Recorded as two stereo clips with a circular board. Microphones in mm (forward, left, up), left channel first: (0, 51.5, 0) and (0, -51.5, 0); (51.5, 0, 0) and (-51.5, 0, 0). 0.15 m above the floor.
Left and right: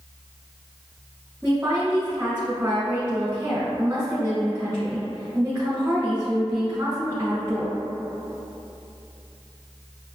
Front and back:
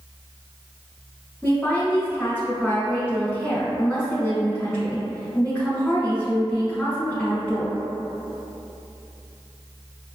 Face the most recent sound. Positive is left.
turn(degrees=-55)